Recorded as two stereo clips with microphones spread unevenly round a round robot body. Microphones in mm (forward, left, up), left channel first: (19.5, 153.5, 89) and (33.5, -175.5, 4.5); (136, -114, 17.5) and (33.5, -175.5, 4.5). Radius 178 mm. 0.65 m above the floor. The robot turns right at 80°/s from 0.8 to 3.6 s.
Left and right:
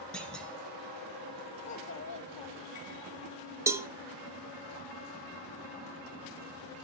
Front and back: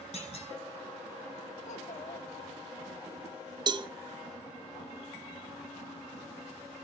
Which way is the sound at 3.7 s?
150° right.